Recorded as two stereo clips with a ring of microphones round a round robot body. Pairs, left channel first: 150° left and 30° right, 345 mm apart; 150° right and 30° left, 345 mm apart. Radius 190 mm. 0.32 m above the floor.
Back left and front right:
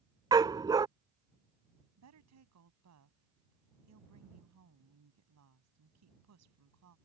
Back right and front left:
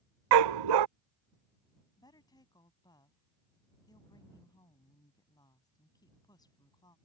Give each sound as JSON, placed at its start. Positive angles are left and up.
{"t": 0.3, "sound": "a dog barking", "azimuth_deg": 50}
{"t": 2.0, "sound": "a woman speaking", "azimuth_deg": -70}